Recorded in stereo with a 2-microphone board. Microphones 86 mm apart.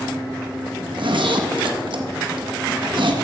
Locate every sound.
0.8 s a zipper: 70° right (ahead or behind), 0.9 m